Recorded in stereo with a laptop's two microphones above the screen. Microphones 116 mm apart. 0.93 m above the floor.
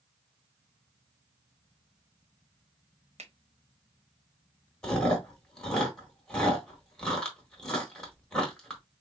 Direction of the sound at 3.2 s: 70° right (ahead or behind).